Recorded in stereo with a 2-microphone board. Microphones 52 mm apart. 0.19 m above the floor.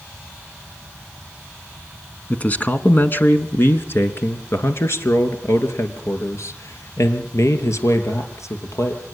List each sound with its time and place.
2.3 s a man speaking: 30° left (ahead or behind), 1.6 m; by 9.0 s 70° left (ahead or behind), 4.5 m